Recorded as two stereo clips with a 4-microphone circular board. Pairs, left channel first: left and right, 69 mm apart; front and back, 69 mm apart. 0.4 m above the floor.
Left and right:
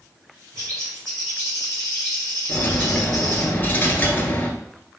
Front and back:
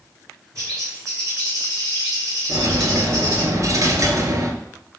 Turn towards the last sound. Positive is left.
turn(degrees=150)